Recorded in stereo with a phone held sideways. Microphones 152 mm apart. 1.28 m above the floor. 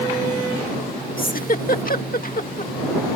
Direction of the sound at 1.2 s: 65° left (ahead or behind).